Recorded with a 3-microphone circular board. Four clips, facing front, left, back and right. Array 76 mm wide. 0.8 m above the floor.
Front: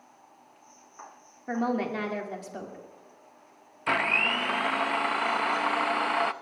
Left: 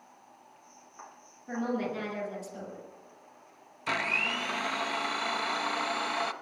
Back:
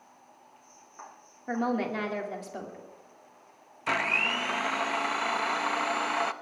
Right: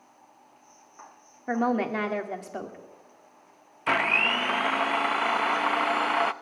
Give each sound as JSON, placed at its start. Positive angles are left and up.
{"t": 1.5, "sound": "a woman speaking", "azimuth_deg": -90, "distance_m": 2.5}
{"t": 3.9, "sound": "a blender", "azimuth_deg": -70, "distance_m": 0.6}